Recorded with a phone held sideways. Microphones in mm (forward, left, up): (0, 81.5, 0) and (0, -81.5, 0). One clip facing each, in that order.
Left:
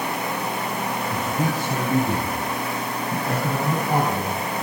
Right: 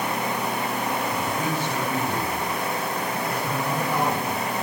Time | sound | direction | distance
1.1 | a man speaking | 35° left (ahead or behind) | 7 m